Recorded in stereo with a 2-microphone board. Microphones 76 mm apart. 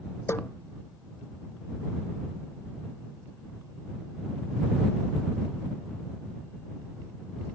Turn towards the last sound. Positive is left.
turn(degrees=30)  # may be behind; listen again after turning